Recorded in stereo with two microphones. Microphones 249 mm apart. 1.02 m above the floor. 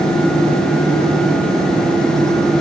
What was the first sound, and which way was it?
Only background noise.